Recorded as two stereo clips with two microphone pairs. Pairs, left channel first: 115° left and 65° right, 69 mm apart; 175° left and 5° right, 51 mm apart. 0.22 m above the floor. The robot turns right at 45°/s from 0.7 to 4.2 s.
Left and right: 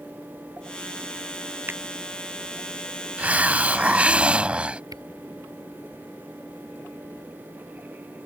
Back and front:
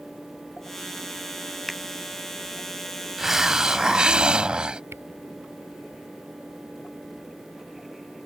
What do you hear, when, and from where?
1.7 s a finger snap: 100° right; by 1.8 s 95° right
3.2 s a hiss: 75° right; by 4.8 s 30° right
4.9 s a camera shutter: 40° right